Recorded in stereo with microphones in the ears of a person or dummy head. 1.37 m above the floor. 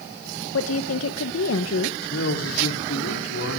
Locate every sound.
0.5 s a woman speaking: 75° left (ahead or behind), 1.3 m
2.0 s a man speaking: 85° left, 4 m